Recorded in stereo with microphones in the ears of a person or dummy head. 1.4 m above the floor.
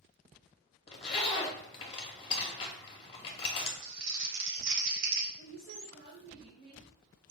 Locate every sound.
0.9 s a zipper: 25° left (ahead or behind), 0.7 m
3.8 s crumpling: 60° right (ahead or behind), 0.8 m
5.4 s a woman speaking: 5° left (ahead or behind), 2 m